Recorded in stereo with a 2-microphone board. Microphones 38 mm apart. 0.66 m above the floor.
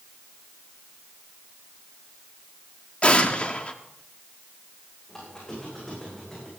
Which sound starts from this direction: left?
An explosion, at 3.0 s.